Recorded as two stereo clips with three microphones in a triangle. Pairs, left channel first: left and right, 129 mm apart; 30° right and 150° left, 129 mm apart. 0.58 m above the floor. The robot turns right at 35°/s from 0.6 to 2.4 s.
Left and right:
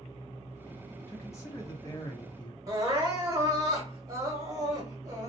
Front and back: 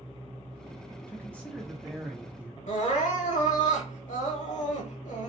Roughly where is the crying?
Ahead right.